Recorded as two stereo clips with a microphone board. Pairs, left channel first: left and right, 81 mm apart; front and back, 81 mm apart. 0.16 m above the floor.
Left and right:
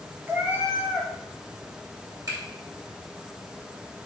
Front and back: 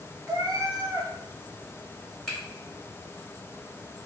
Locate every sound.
0.3 s a cat meowing: 145° right, 0.8 m
2.3 s a finger snap: 85° right, 1.7 m